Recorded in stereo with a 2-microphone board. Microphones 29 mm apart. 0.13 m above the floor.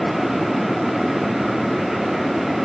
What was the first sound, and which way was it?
Only background noise.